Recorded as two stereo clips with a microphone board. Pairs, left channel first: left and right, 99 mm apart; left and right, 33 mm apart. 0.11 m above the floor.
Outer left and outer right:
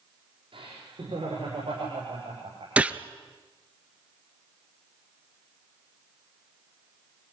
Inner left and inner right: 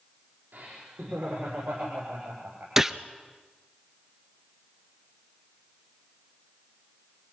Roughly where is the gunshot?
Centre.